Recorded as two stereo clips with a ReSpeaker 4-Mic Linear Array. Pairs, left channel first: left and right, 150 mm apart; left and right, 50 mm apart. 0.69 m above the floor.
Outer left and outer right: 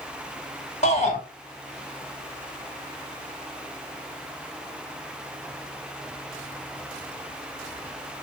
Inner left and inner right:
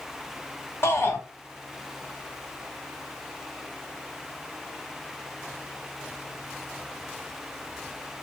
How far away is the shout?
About 1.7 m.